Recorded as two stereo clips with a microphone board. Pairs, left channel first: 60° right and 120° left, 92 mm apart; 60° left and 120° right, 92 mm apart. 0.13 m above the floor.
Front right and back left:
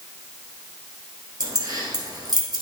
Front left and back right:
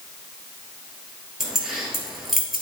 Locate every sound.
1.4 s keys jangling: 155° left, 2 m